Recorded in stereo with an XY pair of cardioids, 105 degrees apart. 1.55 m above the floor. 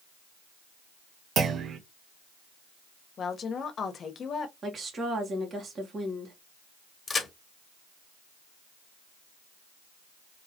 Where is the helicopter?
No helicopter in this recording.